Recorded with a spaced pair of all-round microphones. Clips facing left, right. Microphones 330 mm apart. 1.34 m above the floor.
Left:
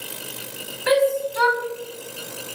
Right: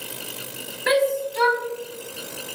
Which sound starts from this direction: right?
A shout, at 0.9 s.